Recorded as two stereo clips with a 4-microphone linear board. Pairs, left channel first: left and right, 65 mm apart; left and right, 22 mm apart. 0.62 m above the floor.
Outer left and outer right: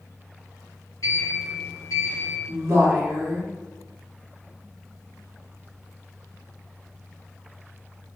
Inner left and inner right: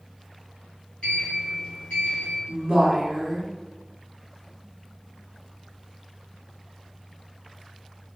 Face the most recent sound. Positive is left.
turn(degrees=-35)  # may be behind; listen again after turning